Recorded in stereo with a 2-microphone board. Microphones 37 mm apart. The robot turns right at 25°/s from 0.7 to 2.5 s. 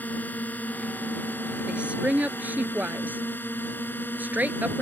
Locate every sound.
0.0 s a drone: 55° left; by 4.8 s 100° left
1.7 s a woman speaking: 30° right (ahead or behind); by 4.8 s 50° right (ahead or behind)